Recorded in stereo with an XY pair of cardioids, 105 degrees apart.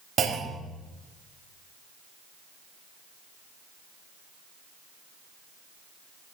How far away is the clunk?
About 3.5 m.